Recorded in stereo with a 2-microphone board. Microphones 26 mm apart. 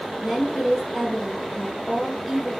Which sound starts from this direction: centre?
A woman speaking, at 0.2 s.